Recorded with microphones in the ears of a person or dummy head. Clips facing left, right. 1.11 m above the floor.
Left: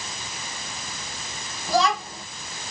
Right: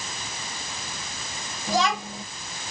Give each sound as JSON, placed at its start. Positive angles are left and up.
{"t": 1.7, "sound": "a child speaking", "side_deg": -20, "distance_m": 4.5}